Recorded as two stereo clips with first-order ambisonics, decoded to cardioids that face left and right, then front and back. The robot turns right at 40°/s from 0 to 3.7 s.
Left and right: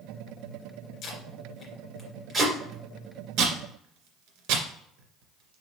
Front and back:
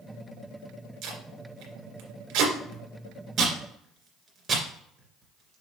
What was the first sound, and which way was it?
Tape being pulled, 145° left.